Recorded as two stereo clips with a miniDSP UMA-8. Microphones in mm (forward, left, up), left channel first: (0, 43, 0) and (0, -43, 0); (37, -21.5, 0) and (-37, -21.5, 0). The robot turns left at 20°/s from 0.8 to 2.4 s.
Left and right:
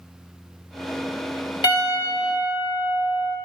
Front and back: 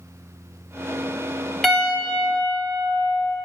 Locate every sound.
1.6 s a piano: 85° left, 1.6 m; by 3.4 s 70° left, 1.6 m